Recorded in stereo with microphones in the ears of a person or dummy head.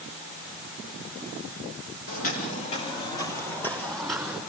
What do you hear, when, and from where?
2.1 s footsteps: 45° left (ahead or behind), 3.5 m; by 4.4 s 5° right (ahead or behind), 4 m